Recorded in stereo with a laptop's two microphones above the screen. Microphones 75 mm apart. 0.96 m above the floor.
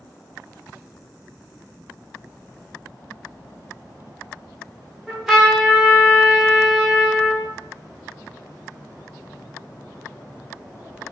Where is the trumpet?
5° right (ahead or behind), 1.0 m.